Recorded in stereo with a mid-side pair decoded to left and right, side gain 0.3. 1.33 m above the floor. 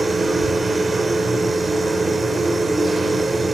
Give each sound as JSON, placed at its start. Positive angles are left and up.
{"t": 0.0, "sound": "a machine running", "azimuth_deg": -45, "distance_m": 3.5}